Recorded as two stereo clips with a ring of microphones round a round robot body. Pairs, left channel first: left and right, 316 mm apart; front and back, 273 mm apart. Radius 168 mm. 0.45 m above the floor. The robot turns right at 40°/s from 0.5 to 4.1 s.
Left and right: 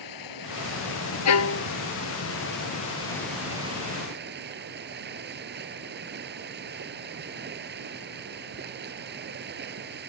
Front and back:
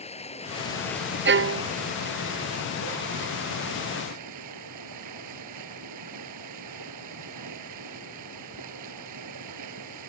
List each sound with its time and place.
0.0 s running water: 65° left; by 10.1 s 150° right
1.2 s a violin: 130° left; by 1.7 s 145° left